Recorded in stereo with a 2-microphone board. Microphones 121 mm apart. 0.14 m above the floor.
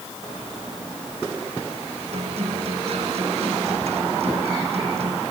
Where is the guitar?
60° right (ahead or behind).